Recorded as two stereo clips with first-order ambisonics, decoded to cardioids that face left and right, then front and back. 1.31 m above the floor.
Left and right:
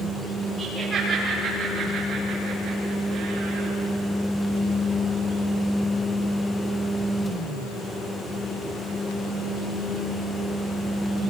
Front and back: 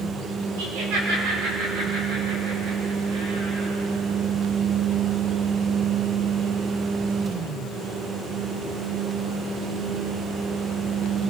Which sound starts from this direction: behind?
Laughter, at 0.6 s.